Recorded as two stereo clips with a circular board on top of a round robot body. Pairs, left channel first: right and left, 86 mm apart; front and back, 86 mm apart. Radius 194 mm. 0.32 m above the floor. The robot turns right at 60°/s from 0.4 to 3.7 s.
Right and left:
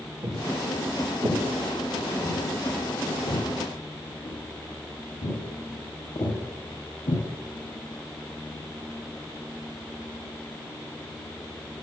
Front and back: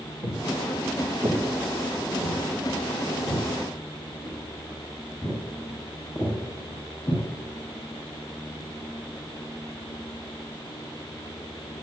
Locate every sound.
0.2 s footsteps: 50° left, 3.5 m; by 7.2 s 70° right, 10.5 m